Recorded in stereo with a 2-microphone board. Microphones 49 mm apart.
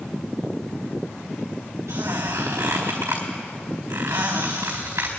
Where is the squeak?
75° right (ahead or behind), 4.5 m.